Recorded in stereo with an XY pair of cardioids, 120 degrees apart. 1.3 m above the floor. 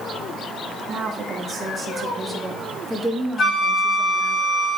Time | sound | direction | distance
0.9 | a woman speaking | 50° right | 2.5 m
3.4 | a flute | 45° left | 4 m